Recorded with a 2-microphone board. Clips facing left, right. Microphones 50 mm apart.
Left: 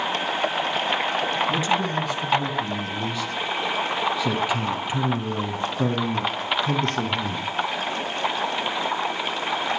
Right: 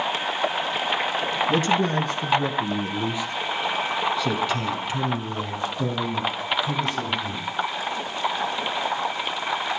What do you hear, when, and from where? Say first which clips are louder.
1.5 s a man speaking: right 2 dB; 40° right (ahead or behind), 5 m; by 7.5 s 55° left (ahead or behind), 6.5 m